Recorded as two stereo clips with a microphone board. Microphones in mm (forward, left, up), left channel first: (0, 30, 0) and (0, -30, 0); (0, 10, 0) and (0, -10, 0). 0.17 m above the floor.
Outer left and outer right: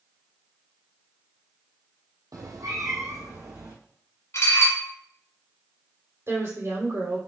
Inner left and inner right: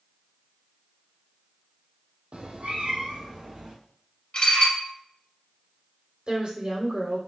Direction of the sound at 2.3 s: 75° right (ahead or behind).